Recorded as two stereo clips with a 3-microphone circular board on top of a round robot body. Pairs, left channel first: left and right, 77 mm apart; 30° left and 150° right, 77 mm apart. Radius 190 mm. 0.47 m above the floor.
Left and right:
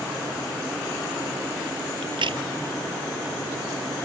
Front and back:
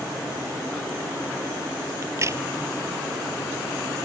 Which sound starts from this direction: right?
A crack, at 2.0 s.